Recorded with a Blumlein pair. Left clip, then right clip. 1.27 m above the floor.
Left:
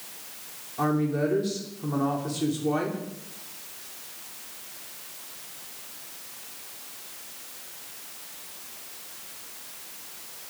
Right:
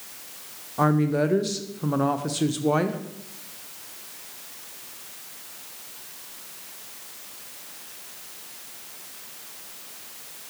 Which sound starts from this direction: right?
A woman speaking, at 0.8 s.